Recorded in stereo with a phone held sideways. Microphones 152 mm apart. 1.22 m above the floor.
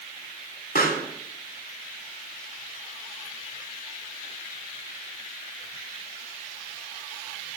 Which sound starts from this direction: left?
A pop, at 0.8 s.